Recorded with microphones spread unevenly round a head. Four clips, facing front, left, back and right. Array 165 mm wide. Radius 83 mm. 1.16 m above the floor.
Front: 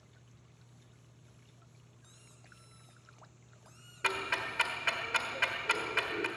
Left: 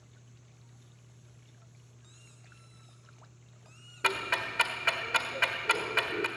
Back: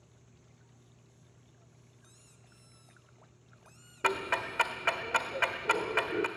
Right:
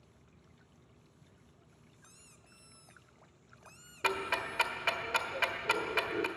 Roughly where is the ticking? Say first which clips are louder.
Left 2 dB, back 4 dB; behind.